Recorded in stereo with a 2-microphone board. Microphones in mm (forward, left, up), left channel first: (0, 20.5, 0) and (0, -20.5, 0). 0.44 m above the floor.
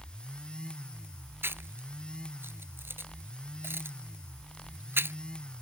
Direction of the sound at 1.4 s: 75° right (ahead or behind).